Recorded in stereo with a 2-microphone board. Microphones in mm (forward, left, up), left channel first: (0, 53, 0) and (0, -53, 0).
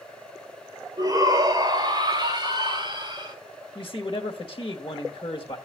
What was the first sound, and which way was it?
A shout, 35° right (ahead or behind).